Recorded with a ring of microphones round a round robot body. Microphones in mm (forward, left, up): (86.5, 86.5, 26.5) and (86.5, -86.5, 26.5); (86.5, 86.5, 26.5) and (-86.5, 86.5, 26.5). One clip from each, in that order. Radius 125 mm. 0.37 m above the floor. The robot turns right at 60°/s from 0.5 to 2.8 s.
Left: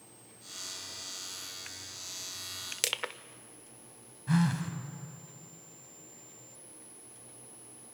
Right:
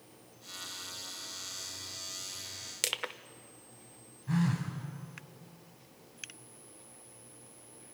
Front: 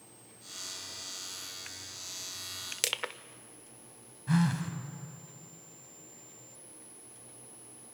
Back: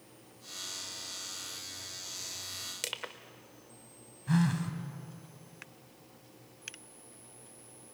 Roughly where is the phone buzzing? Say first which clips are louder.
Left 3 dB, front 1 dB; left.